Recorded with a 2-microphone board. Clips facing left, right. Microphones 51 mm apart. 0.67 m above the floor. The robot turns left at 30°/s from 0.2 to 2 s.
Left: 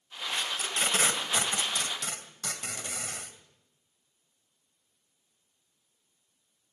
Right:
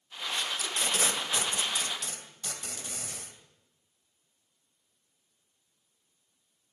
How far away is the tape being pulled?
About 2.5 m.